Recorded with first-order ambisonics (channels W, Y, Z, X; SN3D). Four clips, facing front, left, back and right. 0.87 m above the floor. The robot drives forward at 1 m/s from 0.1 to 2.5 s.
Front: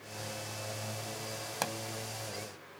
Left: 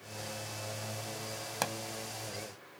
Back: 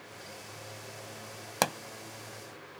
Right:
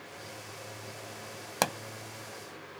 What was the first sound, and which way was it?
A pop, 140° right.